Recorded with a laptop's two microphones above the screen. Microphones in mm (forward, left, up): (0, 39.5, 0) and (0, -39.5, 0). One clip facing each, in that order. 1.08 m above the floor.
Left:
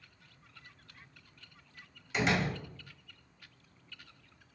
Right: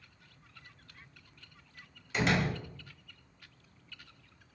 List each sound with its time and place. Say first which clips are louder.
2.1 s a door slam: right 1 dB; 5° left (ahead or behind), 1.4 m